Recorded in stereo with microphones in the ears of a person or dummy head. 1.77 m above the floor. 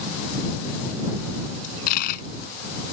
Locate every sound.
1.6 s a dropped coin: 55° left (ahead or behind)